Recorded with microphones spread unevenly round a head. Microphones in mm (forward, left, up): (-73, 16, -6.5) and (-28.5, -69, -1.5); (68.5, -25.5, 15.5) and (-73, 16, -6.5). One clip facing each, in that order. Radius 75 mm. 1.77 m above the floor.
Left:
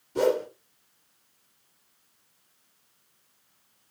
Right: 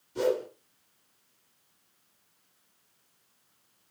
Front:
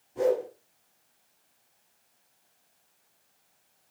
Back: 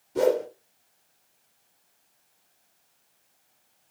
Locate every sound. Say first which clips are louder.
0.1 s a whoosh: left 4 dB, back 3 dB; 150° left, 1.6 m